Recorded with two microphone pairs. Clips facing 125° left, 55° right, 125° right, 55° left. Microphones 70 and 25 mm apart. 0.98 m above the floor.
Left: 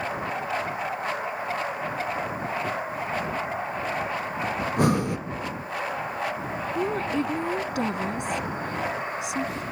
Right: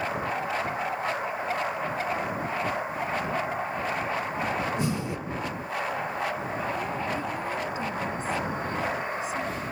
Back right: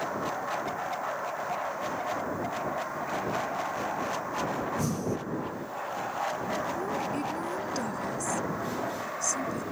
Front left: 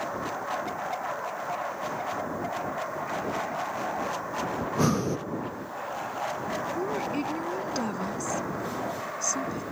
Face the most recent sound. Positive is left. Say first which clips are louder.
# left 4 dB, front left 2 dB
turn(degrees=125)